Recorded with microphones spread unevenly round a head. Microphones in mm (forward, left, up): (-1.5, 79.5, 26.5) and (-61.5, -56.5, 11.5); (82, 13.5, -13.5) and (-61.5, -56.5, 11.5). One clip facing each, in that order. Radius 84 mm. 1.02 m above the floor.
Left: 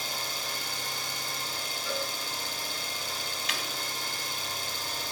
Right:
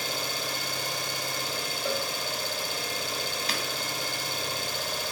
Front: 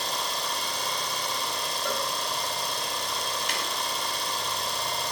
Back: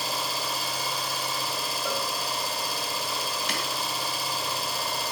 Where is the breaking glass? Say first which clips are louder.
Right 2 dB, back 1 dB; 170° right, 2.5 m.